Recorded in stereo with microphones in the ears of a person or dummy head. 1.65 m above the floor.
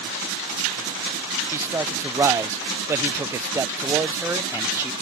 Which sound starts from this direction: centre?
A man speaking, at 1.5 s.